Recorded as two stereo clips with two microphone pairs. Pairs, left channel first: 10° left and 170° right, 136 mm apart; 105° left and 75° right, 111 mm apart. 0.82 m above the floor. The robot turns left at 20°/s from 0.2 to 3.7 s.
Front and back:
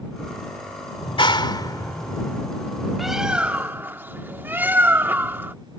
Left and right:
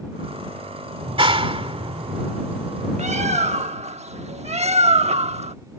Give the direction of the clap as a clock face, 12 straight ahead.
1 o'clock.